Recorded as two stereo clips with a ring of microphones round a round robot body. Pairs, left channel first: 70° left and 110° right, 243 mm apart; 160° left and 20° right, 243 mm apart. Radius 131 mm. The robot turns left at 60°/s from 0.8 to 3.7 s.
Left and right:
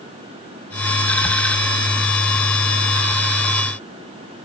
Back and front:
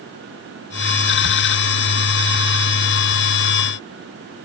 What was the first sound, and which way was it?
Only background noise.